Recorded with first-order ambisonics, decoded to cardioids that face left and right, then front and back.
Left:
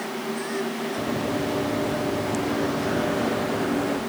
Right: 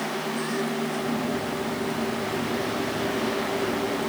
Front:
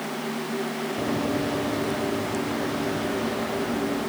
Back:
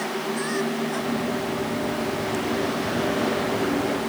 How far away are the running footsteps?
About 2.5 m.